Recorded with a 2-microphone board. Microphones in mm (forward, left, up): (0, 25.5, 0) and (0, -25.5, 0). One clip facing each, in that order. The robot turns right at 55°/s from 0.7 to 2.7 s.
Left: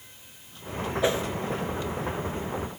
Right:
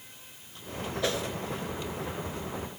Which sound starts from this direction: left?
A whoosh, at 1.0 s.